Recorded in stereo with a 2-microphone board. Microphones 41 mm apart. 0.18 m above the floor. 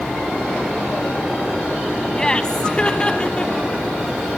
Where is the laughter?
20° left (ahead or behind), 1.0 m; by 3.9 s 25° left (ahead or behind), 1.4 m.